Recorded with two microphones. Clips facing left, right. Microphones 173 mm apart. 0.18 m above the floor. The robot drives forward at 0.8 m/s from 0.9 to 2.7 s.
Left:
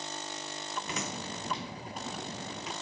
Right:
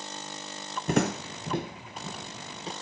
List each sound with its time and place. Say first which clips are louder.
0.9 s footsteps: right 15 dB; 50° right (ahead or behind), 0.5 m; by 2.7 s 30° right (ahead or behind), 2 m